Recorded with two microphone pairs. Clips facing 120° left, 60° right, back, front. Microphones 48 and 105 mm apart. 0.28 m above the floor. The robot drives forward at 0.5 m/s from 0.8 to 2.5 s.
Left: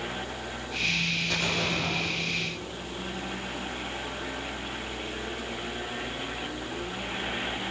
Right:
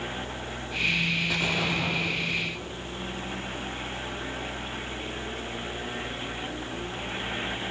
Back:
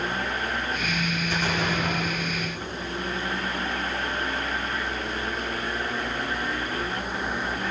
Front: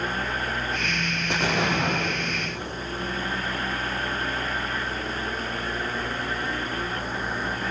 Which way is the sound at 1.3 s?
15° left.